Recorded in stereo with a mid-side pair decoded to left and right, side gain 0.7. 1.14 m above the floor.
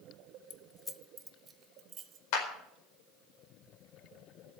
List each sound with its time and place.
0.5 s keys jangling: 45° left, 0.8 m; by 2.2 s 45° right, 1.8 m
2.3 s a clap: 70° left, 4.5 m